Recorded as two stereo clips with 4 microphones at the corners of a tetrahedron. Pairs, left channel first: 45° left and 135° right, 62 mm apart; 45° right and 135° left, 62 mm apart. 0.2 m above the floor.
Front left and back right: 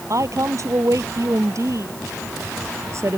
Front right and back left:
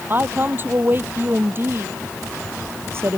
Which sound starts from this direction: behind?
A woman speaking, at 0.1 s.